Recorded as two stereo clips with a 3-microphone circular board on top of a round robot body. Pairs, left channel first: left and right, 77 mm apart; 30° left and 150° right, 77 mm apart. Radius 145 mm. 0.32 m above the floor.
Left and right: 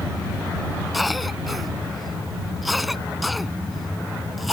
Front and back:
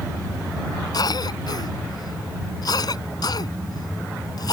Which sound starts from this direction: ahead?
A cough, at 0.9 s.